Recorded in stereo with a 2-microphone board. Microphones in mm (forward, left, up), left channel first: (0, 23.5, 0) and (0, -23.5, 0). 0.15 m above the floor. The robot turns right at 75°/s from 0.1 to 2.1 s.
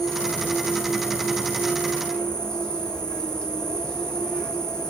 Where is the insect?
10° left, 1.2 m; by 4.9 s 160° left, 1.2 m.